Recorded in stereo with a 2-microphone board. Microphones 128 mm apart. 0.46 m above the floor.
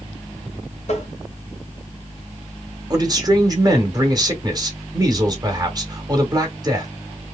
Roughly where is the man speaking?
Right.